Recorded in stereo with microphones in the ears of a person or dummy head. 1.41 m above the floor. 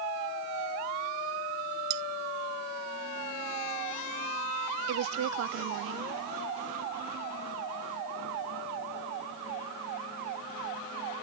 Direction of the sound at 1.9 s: 55° right (ahead or behind).